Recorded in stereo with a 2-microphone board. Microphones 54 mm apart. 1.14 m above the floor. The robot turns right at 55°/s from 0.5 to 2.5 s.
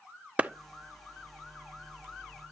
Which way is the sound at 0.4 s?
25° right (ahead or behind).